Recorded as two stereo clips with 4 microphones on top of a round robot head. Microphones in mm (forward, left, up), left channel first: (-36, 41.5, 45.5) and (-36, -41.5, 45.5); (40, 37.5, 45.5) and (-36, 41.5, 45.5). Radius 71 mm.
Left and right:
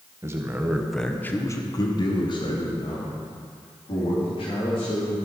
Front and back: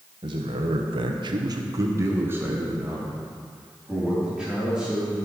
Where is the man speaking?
145° right, 1.5 m; by 5.2 s 95° left, 5 m.